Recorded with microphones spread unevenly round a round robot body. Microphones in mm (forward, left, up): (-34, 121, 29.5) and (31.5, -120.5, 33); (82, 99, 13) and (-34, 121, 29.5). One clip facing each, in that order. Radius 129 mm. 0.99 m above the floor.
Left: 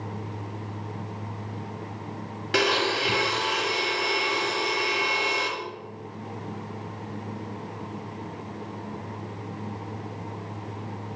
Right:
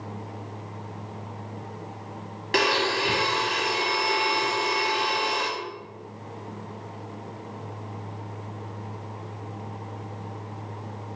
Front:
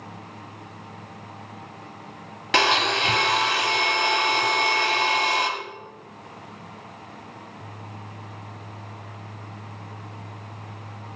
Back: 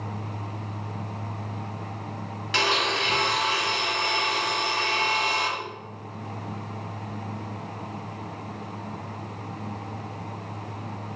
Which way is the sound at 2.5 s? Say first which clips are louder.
Even, front 4 dB; 20° left.